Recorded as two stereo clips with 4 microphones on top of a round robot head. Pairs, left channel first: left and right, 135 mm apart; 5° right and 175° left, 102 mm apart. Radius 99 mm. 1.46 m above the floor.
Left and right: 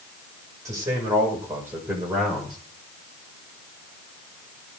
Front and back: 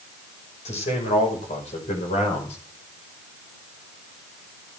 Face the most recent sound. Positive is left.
turn(degrees=0)